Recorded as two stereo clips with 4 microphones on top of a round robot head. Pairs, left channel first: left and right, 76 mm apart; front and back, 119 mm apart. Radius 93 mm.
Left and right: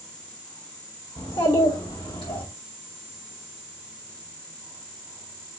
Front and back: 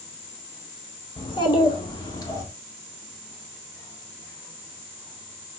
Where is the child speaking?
45° left, 2.5 m; by 2.5 s 60° left, 1.6 m.